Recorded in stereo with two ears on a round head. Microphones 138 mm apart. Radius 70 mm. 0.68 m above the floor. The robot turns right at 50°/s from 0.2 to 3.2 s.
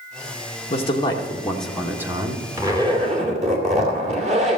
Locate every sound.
0.7 s a man speaking: 130° left, 1.8 m; by 2.4 s 145° right, 1.8 m
2.6 s a zipper: 160° right, 2.5 m; by 4.6 s 130° right, 2.5 m